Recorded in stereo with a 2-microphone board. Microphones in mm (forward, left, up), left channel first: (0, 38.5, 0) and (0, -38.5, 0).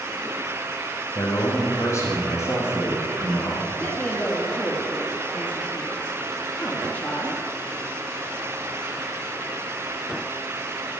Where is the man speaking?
45° left (ahead or behind), 5.5 m; by 3.6 s 30° left (ahead or behind), 5.5 m.